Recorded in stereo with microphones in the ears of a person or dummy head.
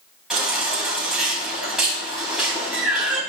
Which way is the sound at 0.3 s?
Centre (ahead or behind).